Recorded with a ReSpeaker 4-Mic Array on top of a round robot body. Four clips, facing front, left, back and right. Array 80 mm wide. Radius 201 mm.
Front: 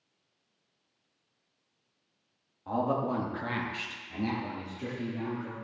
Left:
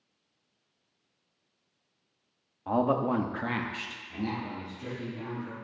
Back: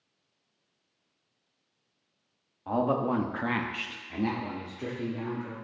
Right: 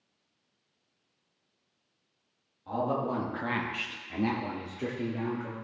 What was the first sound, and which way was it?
A man speaking, 110° left.